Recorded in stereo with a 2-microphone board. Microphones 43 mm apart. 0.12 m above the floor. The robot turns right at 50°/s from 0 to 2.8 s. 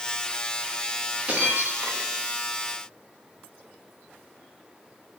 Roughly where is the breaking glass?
Behind right.